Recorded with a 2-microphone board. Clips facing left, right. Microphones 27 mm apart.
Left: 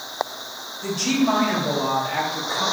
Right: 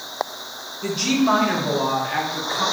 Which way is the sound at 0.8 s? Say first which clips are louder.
Right 1 dB; 30° right (ahead or behind).